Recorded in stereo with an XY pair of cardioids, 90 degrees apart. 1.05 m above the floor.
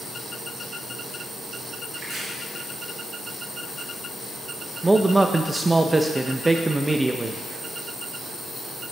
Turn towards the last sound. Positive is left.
turn(degrees=-15)